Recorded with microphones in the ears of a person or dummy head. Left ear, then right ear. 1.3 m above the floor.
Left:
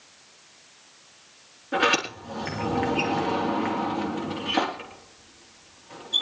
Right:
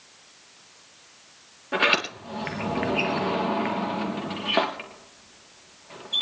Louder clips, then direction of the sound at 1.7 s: Right 1 dB; 25° right (ahead or behind).